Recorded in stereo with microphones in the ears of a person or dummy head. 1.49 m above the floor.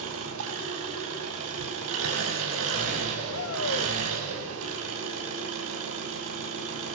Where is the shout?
70° left (ahead or behind), 3.5 m.